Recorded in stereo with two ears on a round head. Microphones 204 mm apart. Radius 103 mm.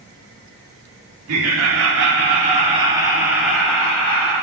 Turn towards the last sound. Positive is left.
turn(degrees=10)  # may be behind; listen again after turning